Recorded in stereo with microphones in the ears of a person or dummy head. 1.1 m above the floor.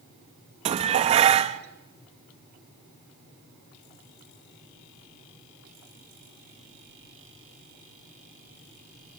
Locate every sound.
0.7 s dishes clattering: 35° right (ahead or behind), 0.6 m